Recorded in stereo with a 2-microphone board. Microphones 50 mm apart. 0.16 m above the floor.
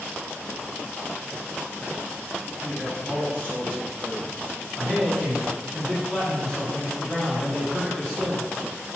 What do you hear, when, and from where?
2.6 s a man speaking: 35° left (ahead or behind), 1.6 m
4.8 s a man speaking: 15° left (ahead or behind), 1.7 m